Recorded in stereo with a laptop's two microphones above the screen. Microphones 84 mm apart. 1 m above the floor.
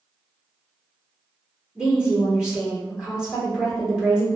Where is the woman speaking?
5° right (ahead or behind), 1.9 m.